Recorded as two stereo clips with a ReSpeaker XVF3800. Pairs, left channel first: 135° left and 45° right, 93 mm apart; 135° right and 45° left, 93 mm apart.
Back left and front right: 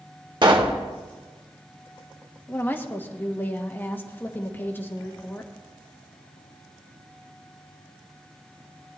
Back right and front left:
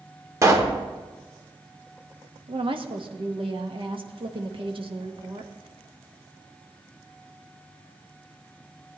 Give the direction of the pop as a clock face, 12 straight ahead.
12 o'clock.